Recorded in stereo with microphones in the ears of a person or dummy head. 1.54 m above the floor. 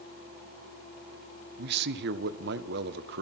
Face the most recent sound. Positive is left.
turn(degrees=-65)  # may be behind; listen again after turning